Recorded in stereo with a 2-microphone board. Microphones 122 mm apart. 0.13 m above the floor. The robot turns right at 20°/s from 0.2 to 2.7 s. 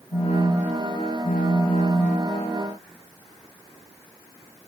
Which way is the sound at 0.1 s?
90° left.